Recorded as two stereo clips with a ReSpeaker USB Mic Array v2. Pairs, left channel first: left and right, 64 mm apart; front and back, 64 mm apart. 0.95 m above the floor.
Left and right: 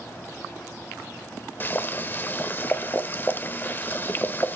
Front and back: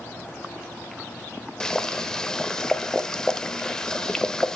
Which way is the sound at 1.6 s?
70° left.